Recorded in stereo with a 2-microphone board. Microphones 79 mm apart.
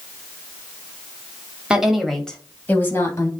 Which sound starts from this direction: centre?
A woman speaking, at 1.7 s.